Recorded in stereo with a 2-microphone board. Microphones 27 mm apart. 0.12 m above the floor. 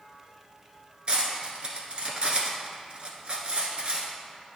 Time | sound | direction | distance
1.1 | cutlery clinking | 45° right (ahead or behind) | 1.1 m